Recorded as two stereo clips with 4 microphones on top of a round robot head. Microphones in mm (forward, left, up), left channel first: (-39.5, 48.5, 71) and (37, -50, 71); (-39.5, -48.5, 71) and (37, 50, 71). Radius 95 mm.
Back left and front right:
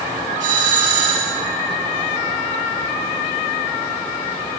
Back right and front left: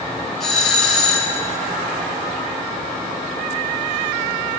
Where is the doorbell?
40° right, 4.5 m.